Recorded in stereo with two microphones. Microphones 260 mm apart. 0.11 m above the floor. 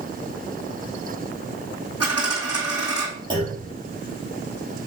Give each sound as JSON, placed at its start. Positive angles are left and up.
{"t": 2.0, "sound": "a dropped coin", "side_deg": 70, "distance_m": 2.5}
{"t": 3.3, "sound": "a clunk", "side_deg": -20, "distance_m": 3.5}